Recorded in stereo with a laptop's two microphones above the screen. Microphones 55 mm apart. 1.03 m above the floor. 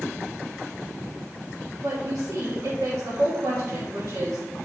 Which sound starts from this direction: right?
A woman speaking, at 1.8 s.